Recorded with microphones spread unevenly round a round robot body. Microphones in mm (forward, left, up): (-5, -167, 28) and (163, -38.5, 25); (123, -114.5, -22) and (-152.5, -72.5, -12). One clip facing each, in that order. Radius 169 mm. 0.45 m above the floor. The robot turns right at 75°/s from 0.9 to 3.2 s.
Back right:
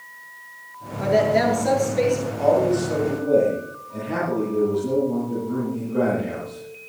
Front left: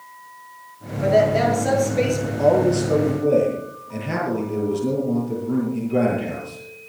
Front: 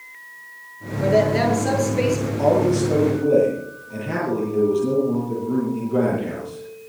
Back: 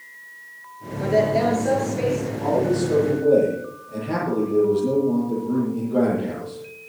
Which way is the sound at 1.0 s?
95° right.